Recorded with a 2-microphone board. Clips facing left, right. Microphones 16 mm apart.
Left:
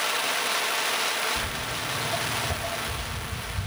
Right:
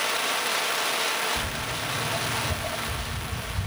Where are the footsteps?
30° left (ahead or behind), 1.3 m; by 3.7 s 40° left (ahead or behind), 1.9 m.